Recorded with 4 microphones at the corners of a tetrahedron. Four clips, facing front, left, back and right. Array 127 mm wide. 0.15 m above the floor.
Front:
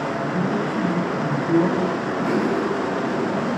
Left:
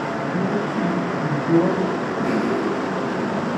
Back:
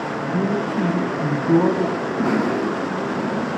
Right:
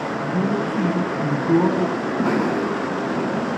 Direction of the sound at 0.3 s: 145° right.